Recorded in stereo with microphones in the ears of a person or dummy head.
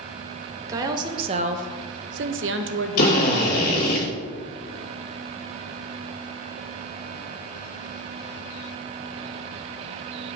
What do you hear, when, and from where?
0.7 s a woman speaking: 20° right (ahead or behind), 0.9 m; by 4.0 s 50° right (ahead or behind), 1.2 m
3.0 s a drill: 55° left (ahead or behind), 2 m